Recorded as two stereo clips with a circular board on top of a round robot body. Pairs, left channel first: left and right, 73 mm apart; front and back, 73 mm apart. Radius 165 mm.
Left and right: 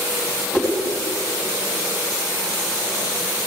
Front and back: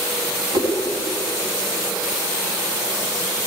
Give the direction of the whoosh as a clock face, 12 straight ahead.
5 o'clock.